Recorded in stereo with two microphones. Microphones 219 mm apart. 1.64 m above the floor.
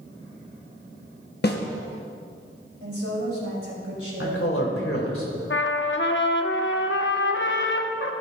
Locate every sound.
1.4 s a snare drum: 45° left (ahead or behind), 1.0 m
2.8 s a woman speaking: 75° right (ahead or behind), 3.5 m
4.2 s a man speaking: 75° left (ahead or behind), 2.5 m
5.5 s a trumpet: 60° left (ahead or behind), 0.7 m